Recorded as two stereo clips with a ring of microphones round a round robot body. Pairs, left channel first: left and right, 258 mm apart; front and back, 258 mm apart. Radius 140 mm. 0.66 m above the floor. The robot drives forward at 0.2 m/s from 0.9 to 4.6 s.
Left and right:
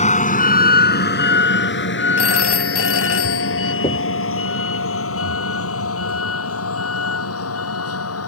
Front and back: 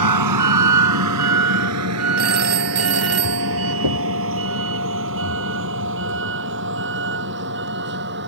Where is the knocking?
160° left.